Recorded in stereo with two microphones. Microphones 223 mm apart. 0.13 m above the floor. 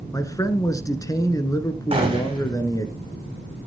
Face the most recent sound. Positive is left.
turn(degrees=-25)  # may be behind; listen again after turning